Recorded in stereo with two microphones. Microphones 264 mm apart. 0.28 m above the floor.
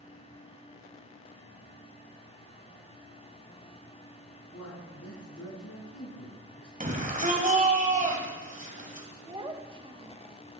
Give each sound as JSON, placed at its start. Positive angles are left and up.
{"t": 4.5, "sound": "a man speaking", "side_deg": 65, "distance_m": 3.0}
{"t": 6.8, "sound": "a shout", "side_deg": -30, "distance_m": 1.9}
{"t": 9.3, "sound": "a child speaking", "side_deg": -20, "distance_m": 0.7}